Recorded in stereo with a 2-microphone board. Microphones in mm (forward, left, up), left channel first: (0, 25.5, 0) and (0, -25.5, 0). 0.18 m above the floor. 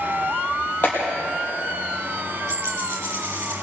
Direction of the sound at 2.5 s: 75° right (ahead or behind).